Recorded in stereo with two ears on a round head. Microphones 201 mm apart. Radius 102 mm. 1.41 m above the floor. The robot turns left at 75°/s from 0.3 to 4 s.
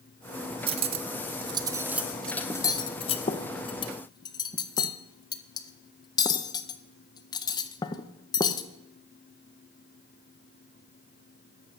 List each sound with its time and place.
0.7 s cutlery clinking: 25° right (ahead or behind), 0.5 m; by 8.7 s 20° left (ahead or behind), 0.5 m